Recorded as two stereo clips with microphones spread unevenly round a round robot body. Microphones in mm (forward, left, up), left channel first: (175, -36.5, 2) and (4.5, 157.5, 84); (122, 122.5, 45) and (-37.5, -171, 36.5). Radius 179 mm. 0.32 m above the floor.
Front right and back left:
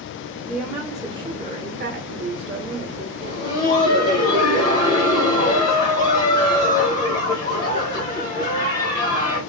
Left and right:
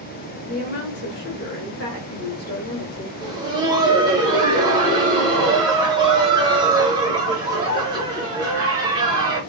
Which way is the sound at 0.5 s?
20° left.